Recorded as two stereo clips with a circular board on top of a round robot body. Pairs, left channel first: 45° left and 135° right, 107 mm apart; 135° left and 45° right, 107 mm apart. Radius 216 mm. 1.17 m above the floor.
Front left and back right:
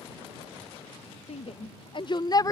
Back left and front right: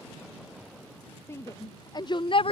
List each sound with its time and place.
1.3 s a shout: 70° left; by 2.5 s 105° left